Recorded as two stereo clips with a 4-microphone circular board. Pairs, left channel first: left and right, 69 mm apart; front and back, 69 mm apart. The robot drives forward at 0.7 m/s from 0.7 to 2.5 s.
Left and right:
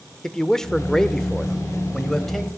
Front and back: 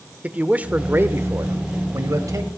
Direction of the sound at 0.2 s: 160° left.